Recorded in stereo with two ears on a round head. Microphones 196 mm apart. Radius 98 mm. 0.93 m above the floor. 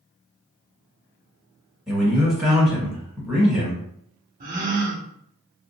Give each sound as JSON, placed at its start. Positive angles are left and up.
{"t": 1.9, "sound": "a man speaking", "side_deg": 0, "distance_m": 1.4}
{"t": 4.4, "sound": "a gasp", "side_deg": -35, "distance_m": 0.7}